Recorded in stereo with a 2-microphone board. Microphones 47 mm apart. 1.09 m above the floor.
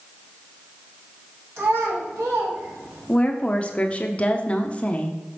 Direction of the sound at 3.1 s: 30° left (ahead or behind).